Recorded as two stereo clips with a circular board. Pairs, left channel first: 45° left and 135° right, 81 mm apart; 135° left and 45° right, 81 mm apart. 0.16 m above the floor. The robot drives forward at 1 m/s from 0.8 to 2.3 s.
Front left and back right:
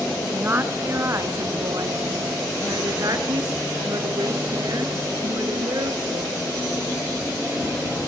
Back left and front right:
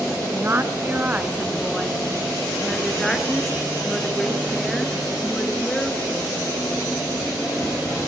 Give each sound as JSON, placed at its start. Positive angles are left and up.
{"t": 0.3, "sound": "a woman speaking", "azimuth_deg": -90, "distance_m": 1.9}